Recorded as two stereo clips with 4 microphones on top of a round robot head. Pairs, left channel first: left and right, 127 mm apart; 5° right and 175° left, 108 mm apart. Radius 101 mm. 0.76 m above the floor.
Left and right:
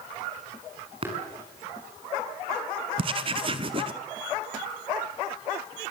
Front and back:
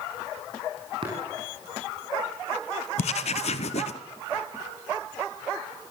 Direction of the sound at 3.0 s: 35° right.